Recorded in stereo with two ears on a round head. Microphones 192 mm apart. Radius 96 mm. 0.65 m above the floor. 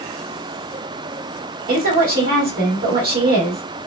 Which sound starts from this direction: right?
A woman speaking, at 1.7 s.